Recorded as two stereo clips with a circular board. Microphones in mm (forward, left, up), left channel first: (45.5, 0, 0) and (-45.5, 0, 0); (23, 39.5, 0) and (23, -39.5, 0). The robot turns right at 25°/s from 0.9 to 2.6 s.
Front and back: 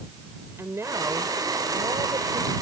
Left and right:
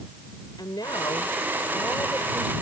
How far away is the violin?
I don't hear a violin.